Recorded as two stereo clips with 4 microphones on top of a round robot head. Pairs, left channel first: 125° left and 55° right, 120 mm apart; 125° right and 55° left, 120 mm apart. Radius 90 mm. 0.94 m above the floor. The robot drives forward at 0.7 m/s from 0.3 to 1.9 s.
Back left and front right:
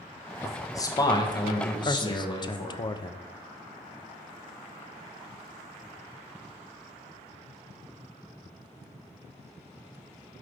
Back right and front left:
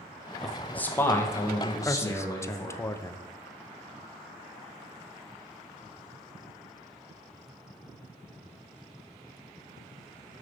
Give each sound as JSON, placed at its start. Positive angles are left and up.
{"t": 0.4, "sound": "a man speaking", "azimuth_deg": 150, "distance_m": 0.8}
{"t": 1.9, "sound": "a man speaking", "azimuth_deg": 170, "distance_m": 0.6}